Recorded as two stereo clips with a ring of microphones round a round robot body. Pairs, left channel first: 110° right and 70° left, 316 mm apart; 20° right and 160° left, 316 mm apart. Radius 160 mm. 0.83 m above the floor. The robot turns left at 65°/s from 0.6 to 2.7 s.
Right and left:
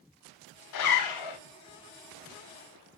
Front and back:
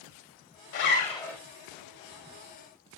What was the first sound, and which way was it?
A zipper, 70° right.